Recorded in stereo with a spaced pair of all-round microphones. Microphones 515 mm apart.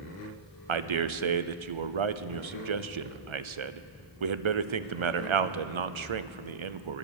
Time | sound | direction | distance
0.7 | a man speaking | 60° right (ahead or behind) | 0.6 m